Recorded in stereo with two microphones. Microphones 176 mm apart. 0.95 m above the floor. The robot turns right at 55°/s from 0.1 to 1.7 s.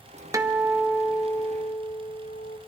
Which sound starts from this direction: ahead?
A guitar, at 0.3 s.